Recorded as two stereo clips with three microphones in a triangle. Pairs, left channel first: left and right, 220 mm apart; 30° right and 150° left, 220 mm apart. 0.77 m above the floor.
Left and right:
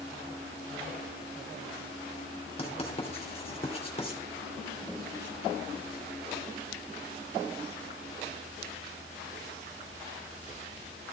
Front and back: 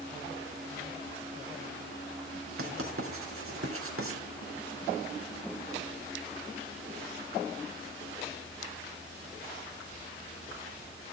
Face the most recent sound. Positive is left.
turn(degrees=155)